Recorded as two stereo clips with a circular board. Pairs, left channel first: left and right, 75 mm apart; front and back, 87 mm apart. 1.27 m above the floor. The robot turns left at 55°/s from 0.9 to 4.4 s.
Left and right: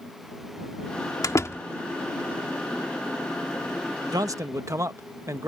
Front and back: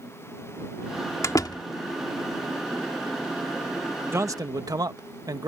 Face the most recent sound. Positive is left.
turn(degrees=-135)